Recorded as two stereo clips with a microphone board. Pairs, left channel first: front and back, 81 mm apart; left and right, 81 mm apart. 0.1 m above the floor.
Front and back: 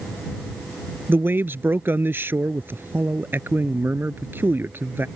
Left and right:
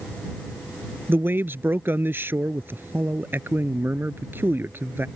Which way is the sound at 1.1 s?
135° right.